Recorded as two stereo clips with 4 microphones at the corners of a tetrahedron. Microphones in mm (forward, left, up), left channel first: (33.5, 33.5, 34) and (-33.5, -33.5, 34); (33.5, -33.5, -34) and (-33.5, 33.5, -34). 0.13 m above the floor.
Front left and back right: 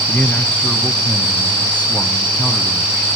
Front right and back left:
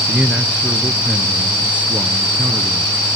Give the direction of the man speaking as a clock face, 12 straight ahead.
9 o'clock.